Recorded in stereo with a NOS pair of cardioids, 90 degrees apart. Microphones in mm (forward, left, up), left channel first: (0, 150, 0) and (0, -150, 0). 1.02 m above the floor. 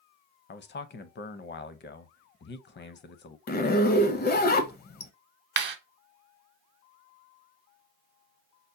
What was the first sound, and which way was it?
A man speaking, 35° left.